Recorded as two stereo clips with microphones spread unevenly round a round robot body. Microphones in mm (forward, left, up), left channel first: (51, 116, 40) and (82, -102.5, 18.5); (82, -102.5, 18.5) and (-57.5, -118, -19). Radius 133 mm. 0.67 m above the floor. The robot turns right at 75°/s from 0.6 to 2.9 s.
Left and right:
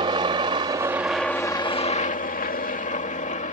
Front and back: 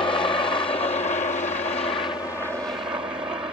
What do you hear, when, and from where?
0.0 s a helicopter: 40° right; by 3.5 s 130° left